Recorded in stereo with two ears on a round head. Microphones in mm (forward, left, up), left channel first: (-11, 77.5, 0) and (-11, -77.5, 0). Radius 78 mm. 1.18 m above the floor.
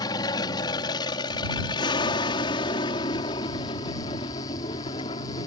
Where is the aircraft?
25° left (ahead or behind); by 5.5 s 30° left (ahead or behind).